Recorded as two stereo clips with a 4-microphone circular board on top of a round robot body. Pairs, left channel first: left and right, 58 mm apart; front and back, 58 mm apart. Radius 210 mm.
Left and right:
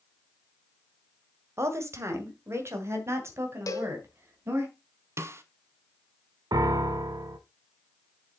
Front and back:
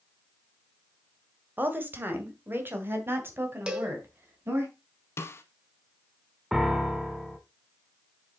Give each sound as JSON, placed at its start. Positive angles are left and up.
{"t": 1.6, "sound": "a woman speaking", "azimuth_deg": -125, "distance_m": 2.5}
{"t": 3.7, "sound": "a cowbell", "azimuth_deg": 105, "distance_m": 2.0}
{"t": 5.2, "sound": "a snare drum", "azimuth_deg": -50, "distance_m": 0.7}
{"t": 6.5, "sound": "a piano", "azimuth_deg": -95, "distance_m": 0.6}